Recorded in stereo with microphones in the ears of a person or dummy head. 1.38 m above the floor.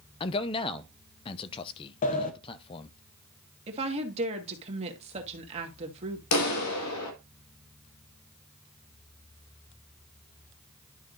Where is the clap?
85° left, 1.9 m.